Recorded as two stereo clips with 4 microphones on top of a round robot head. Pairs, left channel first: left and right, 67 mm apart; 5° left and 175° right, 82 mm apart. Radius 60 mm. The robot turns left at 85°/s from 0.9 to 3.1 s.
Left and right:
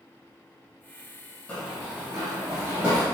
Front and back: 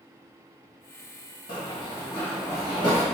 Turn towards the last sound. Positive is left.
turn(degrees=160)